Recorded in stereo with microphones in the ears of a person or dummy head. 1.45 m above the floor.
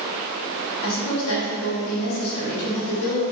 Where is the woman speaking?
80° left, 0.9 m.